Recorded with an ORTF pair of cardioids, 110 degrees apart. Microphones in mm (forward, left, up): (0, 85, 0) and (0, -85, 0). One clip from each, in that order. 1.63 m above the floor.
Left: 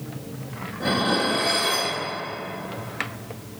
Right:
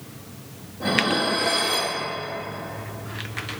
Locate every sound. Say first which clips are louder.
0.8 s dishes clattering: right 1 dB; 5° left, 3 m